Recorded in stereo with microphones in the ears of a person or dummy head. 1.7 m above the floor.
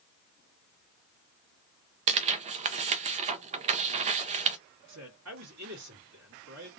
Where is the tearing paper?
30° right (ahead or behind), 0.6 m.